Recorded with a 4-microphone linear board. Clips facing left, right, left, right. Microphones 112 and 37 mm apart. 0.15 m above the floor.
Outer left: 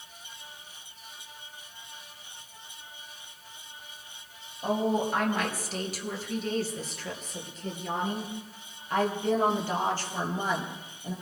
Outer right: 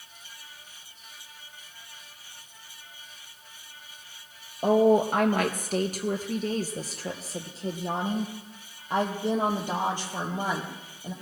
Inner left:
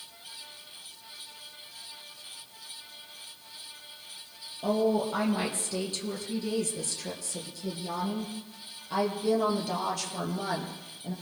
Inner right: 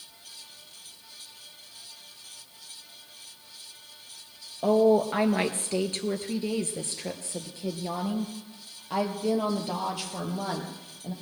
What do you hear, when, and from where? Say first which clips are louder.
4.6 s a woman speaking: outer right 7 dB, inner right 6 dB; 55° right (ahead or behind), 2.5 m; by 11.1 s 10° right (ahead or behind), 4 m